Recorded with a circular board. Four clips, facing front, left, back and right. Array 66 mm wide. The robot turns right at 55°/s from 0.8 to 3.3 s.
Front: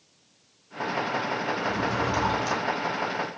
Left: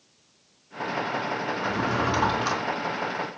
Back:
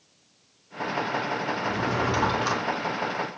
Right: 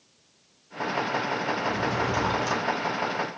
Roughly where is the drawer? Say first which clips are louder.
Left 4 dB, back 1 dB; left.